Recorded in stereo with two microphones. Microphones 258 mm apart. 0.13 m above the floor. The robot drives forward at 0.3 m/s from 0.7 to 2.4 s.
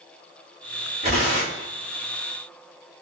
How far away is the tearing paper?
About 2 m.